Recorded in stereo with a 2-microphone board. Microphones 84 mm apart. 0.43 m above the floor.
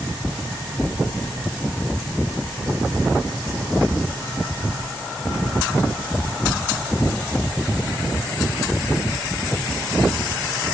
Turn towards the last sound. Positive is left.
No sound to turn to.